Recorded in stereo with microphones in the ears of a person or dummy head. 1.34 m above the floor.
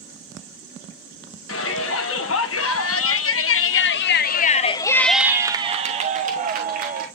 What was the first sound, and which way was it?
A shout, 80° left.